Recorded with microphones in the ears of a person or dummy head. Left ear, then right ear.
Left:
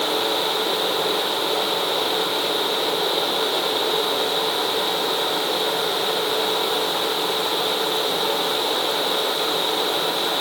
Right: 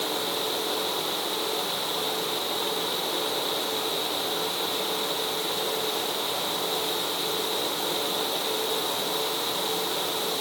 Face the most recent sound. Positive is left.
No sound to turn to.